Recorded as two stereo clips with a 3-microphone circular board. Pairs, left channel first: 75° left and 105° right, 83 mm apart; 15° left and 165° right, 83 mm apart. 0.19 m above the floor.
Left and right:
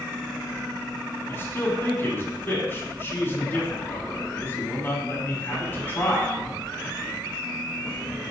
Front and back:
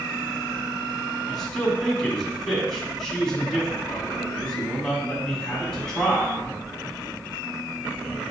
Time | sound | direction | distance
1.3 | a man speaking | 90° left | 1.8 m